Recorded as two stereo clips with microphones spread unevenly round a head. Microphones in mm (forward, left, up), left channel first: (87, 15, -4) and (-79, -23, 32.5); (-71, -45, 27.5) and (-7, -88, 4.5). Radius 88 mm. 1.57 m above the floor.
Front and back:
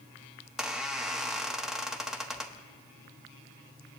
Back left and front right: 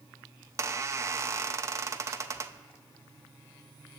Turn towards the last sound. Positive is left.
turn(degrees=-95)